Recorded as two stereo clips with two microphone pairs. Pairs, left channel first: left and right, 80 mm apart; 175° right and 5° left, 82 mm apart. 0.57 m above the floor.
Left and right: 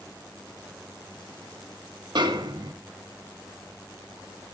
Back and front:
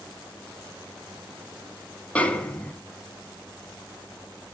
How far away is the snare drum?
About 0.7 m.